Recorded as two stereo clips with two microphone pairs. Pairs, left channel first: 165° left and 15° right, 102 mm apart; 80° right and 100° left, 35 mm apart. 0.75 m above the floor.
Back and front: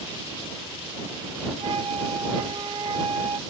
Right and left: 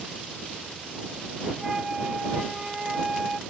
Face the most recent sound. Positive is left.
turn(degrees=30)